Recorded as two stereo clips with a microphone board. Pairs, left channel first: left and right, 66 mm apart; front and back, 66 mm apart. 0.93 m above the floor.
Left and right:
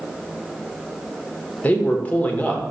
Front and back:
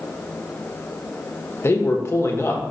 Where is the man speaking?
25° left, 1.2 m.